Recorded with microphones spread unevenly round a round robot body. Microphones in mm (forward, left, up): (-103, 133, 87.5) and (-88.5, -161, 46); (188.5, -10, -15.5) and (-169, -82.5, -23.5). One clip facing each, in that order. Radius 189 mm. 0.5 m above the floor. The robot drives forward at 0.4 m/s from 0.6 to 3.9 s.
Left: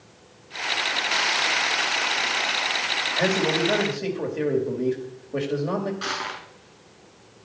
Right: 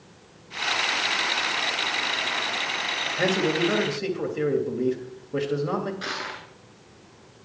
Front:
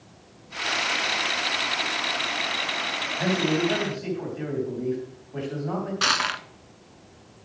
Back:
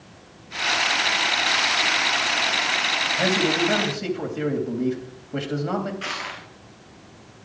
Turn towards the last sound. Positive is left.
turn(degrees=10)